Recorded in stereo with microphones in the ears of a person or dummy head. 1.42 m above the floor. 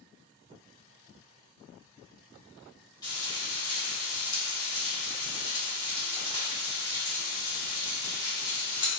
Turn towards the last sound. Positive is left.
turn(degrees=15)  # may be behind; listen again after turning